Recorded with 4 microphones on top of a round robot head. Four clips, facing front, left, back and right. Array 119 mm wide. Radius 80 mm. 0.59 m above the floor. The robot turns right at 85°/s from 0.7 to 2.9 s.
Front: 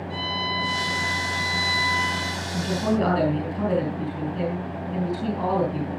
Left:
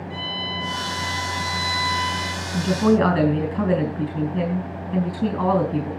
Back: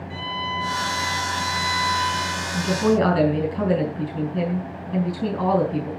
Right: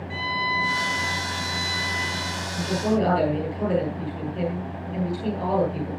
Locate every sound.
0.1 s a violin: 80° right, 5.5 m; by 2.5 s 70° left, 5.5 m
2.5 s a woman speaking: 80° left, 6.5 m; by 5.9 s 110° left, 6.5 m